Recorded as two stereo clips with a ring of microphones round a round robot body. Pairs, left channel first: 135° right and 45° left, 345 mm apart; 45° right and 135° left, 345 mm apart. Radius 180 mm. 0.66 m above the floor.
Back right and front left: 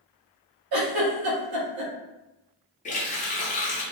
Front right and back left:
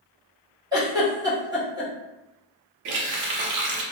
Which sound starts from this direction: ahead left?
A giggle, at 0.7 s.